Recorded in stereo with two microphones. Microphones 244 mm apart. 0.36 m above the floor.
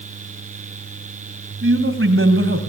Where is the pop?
No pop in this recording.